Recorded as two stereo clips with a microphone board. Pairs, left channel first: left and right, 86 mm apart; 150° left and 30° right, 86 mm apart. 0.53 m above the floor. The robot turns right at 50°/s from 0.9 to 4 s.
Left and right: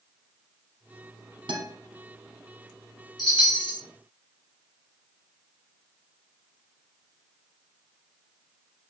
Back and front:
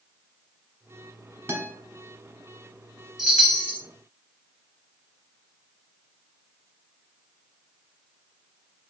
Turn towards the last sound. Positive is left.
turn(degrees=95)